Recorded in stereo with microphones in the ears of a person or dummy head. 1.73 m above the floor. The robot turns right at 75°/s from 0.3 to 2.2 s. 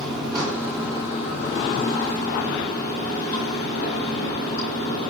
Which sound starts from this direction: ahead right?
Running water, at 0.0 s.